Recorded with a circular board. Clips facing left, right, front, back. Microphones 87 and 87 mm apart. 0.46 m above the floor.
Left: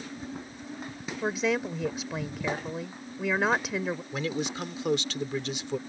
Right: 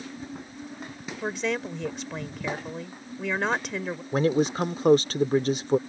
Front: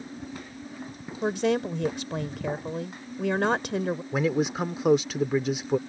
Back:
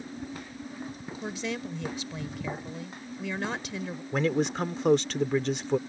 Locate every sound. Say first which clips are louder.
1.2 s a woman speaking: left 1 dB, front 10 dB; 5° left
4.1 s a man speaking: right 8 dB, even; 80° right